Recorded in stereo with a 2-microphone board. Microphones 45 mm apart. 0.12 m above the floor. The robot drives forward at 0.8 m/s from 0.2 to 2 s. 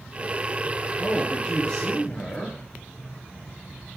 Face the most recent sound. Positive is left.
turn(degrees=15)  # may be behind; listen again after turning